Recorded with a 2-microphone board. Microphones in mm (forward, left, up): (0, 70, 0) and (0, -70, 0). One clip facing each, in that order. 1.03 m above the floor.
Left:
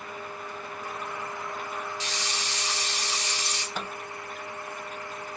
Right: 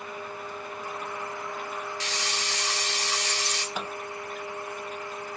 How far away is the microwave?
About 1.2 m.